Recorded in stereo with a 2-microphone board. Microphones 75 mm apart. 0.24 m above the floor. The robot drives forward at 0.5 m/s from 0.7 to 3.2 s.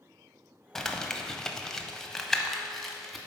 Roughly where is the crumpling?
Centre.